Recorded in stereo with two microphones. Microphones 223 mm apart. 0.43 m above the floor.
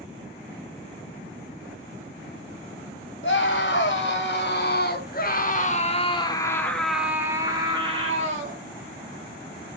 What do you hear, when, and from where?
3.2 s a scream: 55° left (ahead or behind), 1.9 m; by 8.6 s 35° right (ahead or behind), 1.4 m